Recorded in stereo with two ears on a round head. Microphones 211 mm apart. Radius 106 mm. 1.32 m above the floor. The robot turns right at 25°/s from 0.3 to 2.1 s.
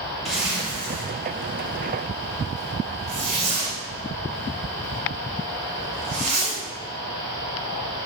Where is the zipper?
Centre (ahead or behind), 1.4 m; by 6.6 s 30° right (ahead or behind), 1.4 m.